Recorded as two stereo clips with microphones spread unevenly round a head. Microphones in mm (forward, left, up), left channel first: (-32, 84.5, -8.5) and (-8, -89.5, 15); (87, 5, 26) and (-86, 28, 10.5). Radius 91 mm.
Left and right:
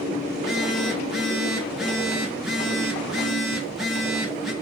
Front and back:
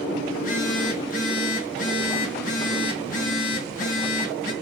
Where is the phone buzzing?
Straight ahead, 0.6 m.